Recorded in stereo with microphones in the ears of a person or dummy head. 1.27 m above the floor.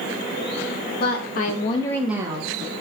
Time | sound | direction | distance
1.0 | a woman speaking | 65° left (ahead or behind) | 1.2 m